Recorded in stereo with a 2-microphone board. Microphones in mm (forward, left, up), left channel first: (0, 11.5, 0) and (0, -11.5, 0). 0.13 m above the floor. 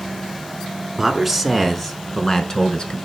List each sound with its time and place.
1.0 s a man speaking: 10° right (ahead or behind), 1.2 m; by 3.0 s 40° left (ahead or behind), 1.3 m